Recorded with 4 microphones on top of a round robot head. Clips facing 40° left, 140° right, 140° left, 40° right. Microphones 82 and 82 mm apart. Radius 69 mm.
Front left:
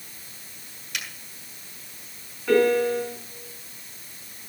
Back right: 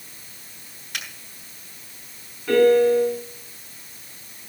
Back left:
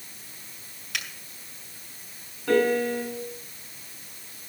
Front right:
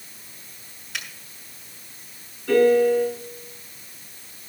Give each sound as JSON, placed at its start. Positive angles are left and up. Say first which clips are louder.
{"t": 0.9, "sound": "a finger snap", "louder": "back right 1 dB, even", "azimuth_deg": 165, "distance_m": 5.0}
{"t": 2.5, "sound": "a piano", "louder": "back right 4 dB, front right 6 dB", "azimuth_deg": 125, "distance_m": 7.5}